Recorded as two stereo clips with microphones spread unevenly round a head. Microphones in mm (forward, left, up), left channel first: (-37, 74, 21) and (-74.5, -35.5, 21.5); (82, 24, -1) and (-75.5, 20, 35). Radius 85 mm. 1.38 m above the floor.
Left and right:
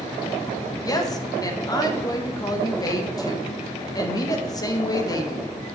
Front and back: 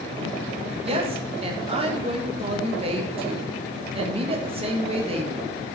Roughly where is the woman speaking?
Behind left.